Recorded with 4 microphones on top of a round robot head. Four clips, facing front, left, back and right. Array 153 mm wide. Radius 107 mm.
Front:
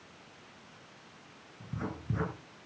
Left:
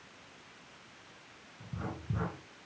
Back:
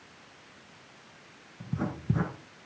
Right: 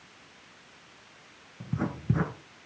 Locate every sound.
1.6 s writing: 120° right, 3.5 m